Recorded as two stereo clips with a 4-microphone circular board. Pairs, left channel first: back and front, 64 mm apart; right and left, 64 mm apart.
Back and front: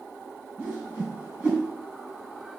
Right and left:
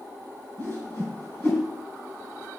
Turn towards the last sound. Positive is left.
turn(degrees=-65)